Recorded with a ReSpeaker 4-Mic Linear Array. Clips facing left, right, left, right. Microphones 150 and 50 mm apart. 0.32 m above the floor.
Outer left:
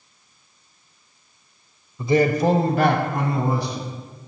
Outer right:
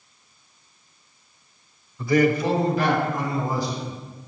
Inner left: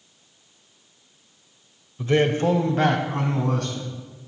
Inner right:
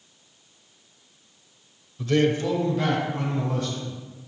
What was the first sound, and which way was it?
A man speaking, 15° left (ahead or behind).